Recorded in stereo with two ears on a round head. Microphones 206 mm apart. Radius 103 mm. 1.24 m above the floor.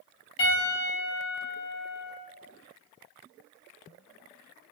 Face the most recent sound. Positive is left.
turn(degrees=25)  # may be behind; listen again after turning